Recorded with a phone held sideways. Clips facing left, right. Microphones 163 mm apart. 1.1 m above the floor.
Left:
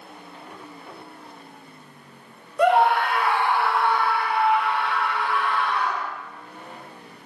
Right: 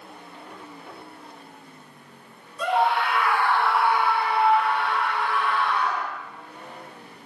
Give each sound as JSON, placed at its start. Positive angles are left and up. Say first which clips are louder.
{"t": 2.6, "sound": "a scream", "louder": "left 5 dB", "side_deg": 60, "distance_m": 0.7}